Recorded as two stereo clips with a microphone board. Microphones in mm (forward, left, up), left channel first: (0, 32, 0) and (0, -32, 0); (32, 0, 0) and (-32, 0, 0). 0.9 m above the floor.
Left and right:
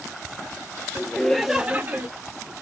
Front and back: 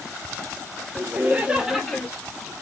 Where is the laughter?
145° left, 0.7 m; by 2.1 s 75° right, 0.7 m.